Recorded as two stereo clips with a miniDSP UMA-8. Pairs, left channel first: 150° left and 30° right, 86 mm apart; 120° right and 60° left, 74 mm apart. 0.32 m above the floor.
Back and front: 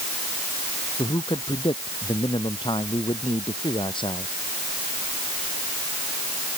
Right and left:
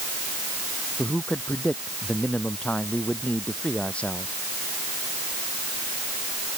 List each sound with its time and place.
1.0 s a man speaking: 165° left